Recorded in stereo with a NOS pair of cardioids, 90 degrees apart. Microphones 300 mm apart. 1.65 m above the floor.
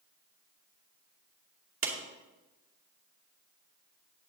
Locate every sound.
1.8 s a clap: 45° right, 2.5 m